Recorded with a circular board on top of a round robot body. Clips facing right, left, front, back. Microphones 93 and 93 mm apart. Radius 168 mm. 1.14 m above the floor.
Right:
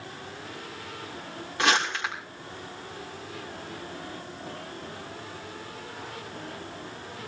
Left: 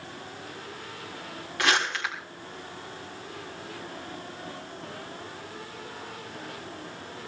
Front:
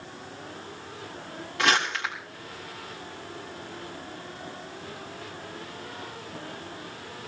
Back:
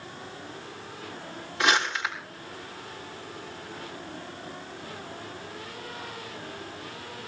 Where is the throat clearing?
No throat clearing in this recording.